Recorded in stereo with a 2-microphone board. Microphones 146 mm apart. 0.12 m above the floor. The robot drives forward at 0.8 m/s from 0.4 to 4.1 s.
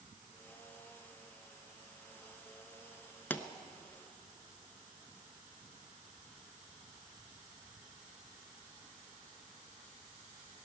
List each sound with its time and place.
3.3 s a pop: 15° left (ahead or behind), 0.7 m